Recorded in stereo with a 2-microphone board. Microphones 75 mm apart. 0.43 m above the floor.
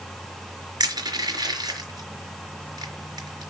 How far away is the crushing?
About 4 m.